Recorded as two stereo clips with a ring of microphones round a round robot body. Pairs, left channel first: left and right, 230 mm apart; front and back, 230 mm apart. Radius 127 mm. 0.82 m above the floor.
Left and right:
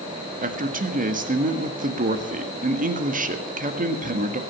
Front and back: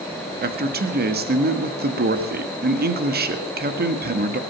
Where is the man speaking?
140° right, 1.5 m.